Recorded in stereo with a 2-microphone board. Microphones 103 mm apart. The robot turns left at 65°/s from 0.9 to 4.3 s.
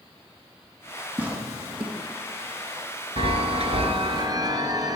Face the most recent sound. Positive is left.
turn(degrees=-140)